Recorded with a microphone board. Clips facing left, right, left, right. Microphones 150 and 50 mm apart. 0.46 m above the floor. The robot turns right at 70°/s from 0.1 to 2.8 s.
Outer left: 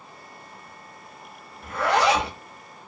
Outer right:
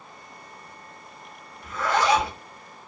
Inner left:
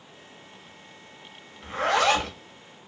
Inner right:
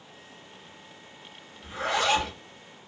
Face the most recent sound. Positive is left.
turn(degrees=135)